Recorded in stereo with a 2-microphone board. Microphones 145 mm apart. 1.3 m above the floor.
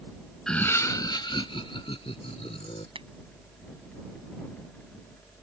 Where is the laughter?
5° left (ahead or behind); by 2.9 s 45° left (ahead or behind).